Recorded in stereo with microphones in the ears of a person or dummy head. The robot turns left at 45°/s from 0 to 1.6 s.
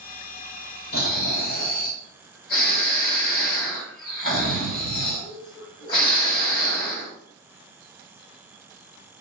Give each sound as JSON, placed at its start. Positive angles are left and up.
{"t": 0.9, "sound": "snoring", "azimuth_deg": 60, "distance_m": 2.0}